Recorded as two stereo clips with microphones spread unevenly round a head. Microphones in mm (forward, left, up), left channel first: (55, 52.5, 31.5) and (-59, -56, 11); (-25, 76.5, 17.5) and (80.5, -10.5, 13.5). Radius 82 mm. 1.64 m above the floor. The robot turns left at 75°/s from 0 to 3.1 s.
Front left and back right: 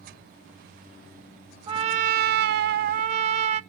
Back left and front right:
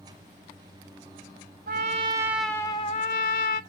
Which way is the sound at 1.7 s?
75° right.